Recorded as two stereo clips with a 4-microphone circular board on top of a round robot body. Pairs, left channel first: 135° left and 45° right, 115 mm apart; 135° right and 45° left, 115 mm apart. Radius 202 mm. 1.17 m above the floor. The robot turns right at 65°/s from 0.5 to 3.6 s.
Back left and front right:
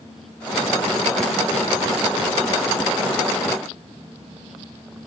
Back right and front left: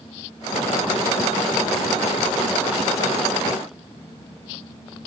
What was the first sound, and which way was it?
Only background noise.